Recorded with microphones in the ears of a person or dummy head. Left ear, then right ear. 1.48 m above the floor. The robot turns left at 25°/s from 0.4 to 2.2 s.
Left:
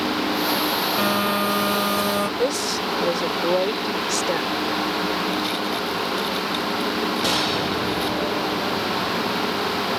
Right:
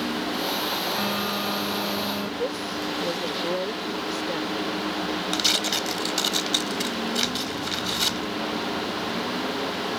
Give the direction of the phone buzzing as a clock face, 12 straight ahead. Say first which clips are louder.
Left 6 dB; 7 o'clock.